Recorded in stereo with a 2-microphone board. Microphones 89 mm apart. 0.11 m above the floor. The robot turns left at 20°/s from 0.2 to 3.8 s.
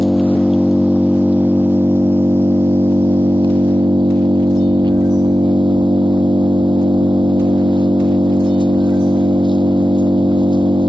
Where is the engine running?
5° left, 0.8 m; by 10.9 s 65° right, 0.8 m.